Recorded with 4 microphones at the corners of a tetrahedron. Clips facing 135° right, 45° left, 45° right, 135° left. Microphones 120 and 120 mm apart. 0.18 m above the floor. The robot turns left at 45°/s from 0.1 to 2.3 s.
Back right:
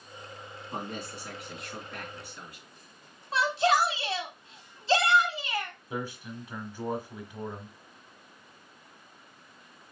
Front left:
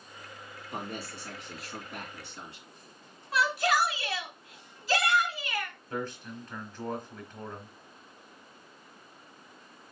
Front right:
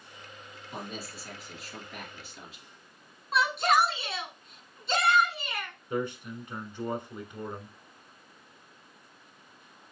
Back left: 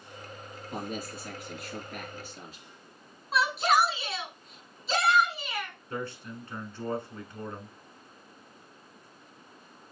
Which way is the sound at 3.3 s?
140° right.